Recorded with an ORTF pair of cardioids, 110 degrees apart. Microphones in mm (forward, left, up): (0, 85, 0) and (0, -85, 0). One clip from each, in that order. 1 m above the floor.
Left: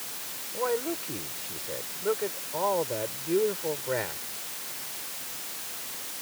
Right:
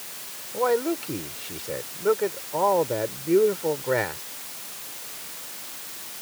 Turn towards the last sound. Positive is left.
turn(degrees=-40)